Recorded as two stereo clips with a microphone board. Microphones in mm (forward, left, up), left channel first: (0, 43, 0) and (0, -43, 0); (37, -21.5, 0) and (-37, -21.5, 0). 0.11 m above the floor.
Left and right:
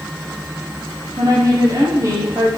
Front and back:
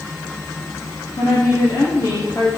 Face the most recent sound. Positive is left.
turn(degrees=-40)